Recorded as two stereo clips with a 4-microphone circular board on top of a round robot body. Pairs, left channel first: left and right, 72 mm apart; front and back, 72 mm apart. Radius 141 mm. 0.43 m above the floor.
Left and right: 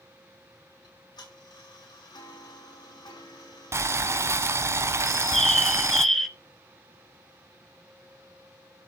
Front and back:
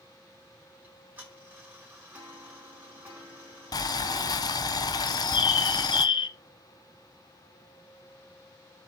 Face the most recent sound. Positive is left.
turn(degrees=5)